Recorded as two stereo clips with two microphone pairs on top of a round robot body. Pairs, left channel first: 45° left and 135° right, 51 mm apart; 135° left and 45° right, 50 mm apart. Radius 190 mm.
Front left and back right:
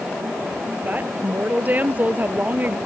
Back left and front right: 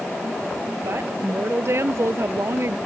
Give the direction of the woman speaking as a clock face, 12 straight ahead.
3 o'clock.